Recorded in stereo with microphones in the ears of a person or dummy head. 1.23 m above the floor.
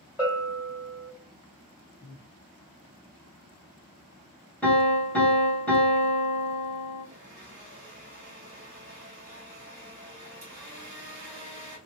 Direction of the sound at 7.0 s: 50° right (ahead or behind).